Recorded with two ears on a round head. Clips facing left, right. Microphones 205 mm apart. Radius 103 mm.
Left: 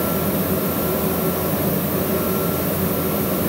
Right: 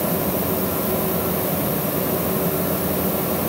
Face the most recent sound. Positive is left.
No sound to turn to.